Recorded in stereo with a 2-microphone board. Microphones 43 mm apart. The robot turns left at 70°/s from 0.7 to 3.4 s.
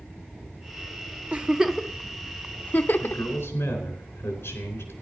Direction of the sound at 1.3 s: 30° right (ahead or behind).